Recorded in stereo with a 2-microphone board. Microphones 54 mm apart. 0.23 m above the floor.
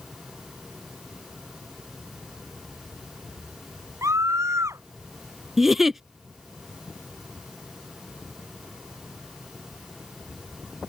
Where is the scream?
75° right (ahead or behind).